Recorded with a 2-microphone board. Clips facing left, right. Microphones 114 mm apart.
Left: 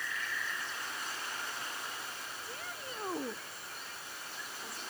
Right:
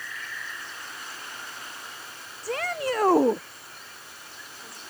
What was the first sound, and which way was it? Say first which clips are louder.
A shout: right 21 dB; 85° right.